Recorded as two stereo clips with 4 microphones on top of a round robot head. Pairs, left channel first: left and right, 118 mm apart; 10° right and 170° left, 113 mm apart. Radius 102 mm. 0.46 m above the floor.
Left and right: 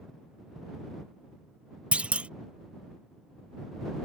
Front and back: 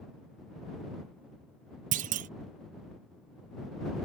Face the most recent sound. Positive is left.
turn(degrees=-170)